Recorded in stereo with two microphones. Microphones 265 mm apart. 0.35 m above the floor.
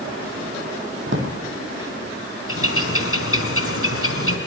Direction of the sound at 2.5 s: 55° left (ahead or behind).